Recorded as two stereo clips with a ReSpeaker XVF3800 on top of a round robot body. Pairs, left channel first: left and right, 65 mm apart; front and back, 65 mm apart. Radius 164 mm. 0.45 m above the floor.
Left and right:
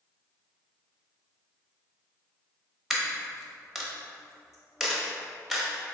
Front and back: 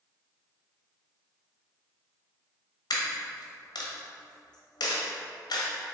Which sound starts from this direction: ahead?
A dropped coin, at 2.9 s.